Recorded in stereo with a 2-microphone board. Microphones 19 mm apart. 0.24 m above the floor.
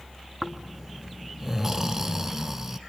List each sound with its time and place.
0.4 s snoring: 20° right (ahead or behind), 1.2 m